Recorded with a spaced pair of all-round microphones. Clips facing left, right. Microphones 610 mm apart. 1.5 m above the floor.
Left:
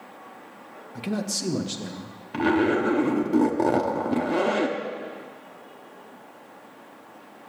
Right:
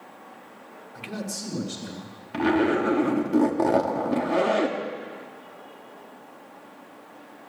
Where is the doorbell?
No doorbell in this recording.